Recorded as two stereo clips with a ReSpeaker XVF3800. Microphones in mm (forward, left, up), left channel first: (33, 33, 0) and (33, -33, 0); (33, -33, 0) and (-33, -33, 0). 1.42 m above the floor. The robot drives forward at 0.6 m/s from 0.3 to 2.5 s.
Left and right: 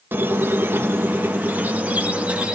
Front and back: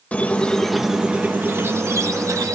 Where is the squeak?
55° right, 0.7 m; by 2.5 s 160° right, 1.3 m.